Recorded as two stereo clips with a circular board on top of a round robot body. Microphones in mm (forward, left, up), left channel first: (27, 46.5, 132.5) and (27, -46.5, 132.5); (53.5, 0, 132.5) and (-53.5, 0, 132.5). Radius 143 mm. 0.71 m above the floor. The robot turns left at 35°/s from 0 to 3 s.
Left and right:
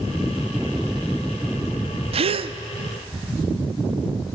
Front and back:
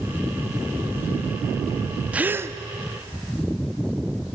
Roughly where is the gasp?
Right.